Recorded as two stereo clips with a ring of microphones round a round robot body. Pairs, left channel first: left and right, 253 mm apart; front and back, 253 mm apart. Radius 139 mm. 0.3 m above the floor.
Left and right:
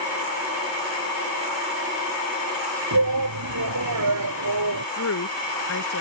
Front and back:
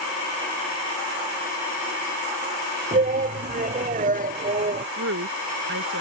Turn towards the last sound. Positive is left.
turn(degrees=130)